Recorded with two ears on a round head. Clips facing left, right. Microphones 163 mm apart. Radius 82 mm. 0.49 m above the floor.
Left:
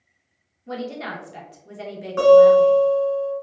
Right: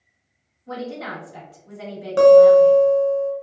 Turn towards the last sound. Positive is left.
turn(degrees=-45)  # may be behind; listen again after turning